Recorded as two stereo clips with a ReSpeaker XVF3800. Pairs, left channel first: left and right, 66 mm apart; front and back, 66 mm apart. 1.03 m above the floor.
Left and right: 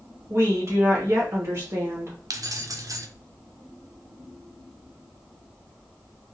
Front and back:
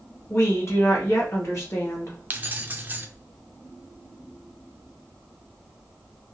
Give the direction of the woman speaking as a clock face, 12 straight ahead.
1 o'clock.